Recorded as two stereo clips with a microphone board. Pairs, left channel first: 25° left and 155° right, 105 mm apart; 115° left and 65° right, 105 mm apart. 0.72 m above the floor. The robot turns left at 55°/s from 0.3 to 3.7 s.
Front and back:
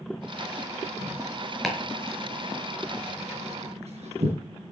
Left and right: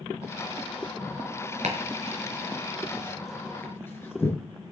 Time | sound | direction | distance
1.6 | chopping | 65° right | 5 m